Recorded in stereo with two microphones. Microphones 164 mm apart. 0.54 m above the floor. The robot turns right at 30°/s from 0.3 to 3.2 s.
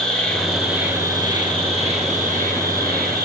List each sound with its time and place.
0.0 s an insect: straight behind, 5 m; by 3.2 s 95° right, 5 m